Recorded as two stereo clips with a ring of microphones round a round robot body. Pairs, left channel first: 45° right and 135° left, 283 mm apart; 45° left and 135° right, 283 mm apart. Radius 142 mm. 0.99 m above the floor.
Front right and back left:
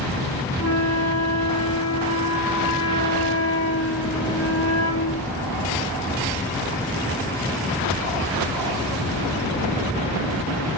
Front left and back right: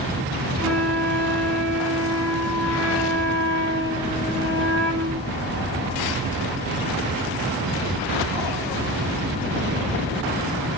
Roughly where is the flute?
Right.